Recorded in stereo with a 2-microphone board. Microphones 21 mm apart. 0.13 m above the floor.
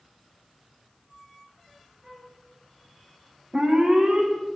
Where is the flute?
20° right (ahead or behind), 4 m.